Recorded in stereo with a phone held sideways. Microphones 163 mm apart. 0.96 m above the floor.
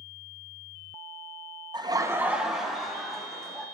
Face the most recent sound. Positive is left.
turn(degrees=5)  # may be behind; listen again after turning